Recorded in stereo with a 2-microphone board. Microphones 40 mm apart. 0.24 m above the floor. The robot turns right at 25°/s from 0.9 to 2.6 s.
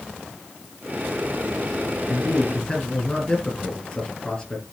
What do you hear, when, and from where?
2.1 s a man speaking: 35° left (ahead or behind), 5 m; by 4.6 s 20° left (ahead or behind), 5 m